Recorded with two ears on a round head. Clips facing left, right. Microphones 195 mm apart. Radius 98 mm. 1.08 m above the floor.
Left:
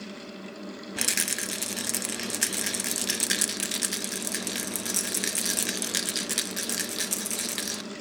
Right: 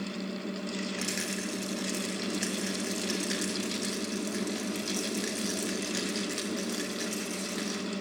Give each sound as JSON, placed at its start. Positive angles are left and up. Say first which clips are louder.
{"t": 1.0, "sound": "a rattle", "louder": "right 2 dB", "side_deg": 75, "distance_m": 1.1}